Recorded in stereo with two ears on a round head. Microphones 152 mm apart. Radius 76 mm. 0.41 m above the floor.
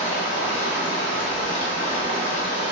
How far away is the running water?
About 1.2 m.